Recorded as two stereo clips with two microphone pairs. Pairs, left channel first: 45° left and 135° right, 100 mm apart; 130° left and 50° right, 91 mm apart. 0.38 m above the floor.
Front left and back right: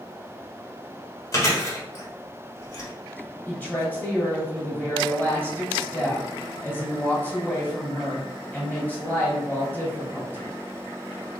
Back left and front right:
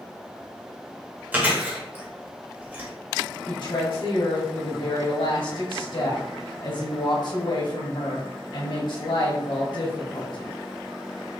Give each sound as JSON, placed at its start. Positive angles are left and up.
{"t": 1.3, "sound": "chewing", "azimuth_deg": 15, "distance_m": 1.1}
{"t": 3.5, "sound": "a woman speaking", "azimuth_deg": 115, "distance_m": 1.7}